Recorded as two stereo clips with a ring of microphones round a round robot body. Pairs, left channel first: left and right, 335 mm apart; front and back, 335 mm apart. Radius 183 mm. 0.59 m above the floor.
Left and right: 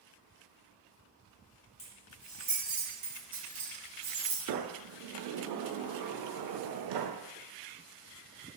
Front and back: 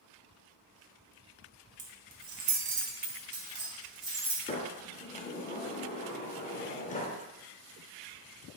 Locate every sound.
1.8 s keys jangling: 160° left, 0.7 m; by 4.5 s 120° right, 1.8 m
4.5 s a sliding door: 70° right, 0.6 m